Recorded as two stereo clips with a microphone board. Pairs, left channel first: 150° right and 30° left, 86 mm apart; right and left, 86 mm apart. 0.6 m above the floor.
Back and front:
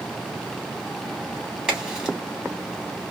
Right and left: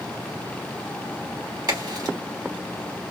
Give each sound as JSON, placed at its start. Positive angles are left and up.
{"t": 1.7, "sound": "a crack", "azimuth_deg": 110, "distance_m": 2.5}